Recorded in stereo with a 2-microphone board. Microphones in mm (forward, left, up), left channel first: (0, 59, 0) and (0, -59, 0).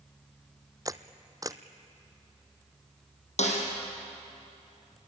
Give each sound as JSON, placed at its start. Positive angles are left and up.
{"t": 0.8, "sound": "a camera shutter", "side_deg": -30, "distance_m": 0.7}
{"t": 3.4, "sound": "a snare drum", "side_deg": 65, "distance_m": 4.5}